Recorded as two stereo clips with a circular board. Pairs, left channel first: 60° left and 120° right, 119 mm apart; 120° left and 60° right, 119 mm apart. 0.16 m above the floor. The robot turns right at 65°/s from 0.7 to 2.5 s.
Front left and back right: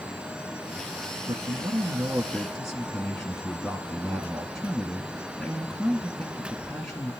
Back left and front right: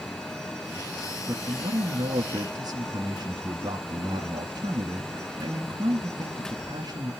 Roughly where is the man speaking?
Right.